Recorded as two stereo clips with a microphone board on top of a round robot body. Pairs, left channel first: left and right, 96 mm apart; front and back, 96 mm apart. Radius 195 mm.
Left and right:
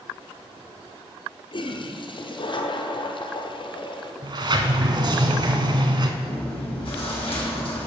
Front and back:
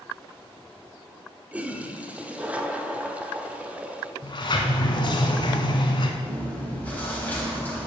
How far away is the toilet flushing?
About 1.3 m.